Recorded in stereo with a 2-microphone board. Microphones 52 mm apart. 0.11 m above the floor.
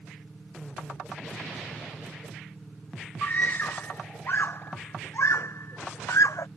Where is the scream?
30° left (ahead or behind); by 6.5 s 70° left (ahead or behind).